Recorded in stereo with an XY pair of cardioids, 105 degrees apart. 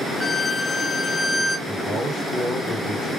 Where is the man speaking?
50° right, 2.5 m.